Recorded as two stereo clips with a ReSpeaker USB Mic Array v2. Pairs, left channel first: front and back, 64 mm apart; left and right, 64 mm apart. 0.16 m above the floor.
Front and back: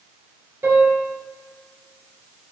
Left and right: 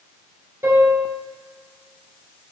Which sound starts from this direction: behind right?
A piano, at 0.6 s.